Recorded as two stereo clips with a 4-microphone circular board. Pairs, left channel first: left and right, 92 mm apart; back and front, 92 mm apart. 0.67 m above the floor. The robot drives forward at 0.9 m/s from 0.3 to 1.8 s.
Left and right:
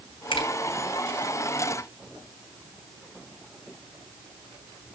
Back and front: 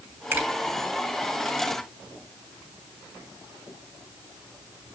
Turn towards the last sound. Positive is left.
turn(degrees=95)